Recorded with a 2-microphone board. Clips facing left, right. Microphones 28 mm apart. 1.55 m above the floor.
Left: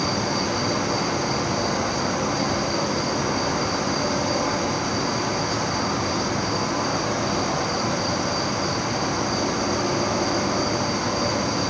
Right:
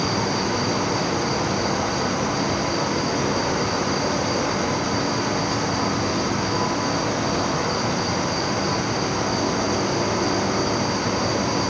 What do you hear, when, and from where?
0.0 s an insect: 10° left (ahead or behind), 4 m